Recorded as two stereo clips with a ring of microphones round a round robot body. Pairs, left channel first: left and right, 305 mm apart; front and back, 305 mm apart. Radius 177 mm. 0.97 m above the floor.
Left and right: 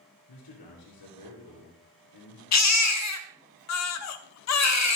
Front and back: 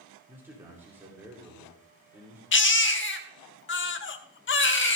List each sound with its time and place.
0.3 s a man speaking: 95° left, 2.5 m
2.5 s a baby crying: 55° left, 1.1 m